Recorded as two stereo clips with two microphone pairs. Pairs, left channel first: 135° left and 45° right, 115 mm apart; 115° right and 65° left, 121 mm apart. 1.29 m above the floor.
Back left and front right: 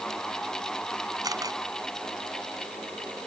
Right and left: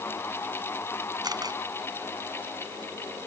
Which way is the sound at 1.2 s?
10° left.